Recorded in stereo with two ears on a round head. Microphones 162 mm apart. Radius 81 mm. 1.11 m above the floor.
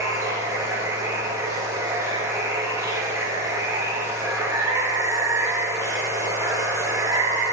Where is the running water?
15° right (ahead or behind), 1.1 m.